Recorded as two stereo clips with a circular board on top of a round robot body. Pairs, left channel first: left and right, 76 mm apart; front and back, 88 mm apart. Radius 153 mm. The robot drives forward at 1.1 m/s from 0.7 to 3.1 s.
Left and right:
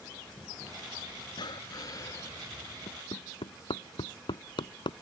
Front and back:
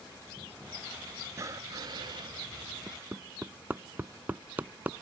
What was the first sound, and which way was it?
Breathing, 120° left.